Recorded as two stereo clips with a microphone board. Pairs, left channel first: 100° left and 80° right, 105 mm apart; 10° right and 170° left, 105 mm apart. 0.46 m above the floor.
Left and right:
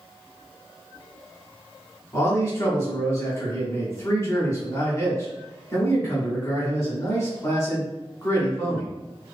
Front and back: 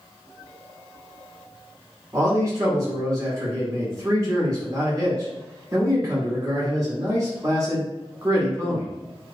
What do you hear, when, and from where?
2.1 s a man speaking: 135° left, 1.2 m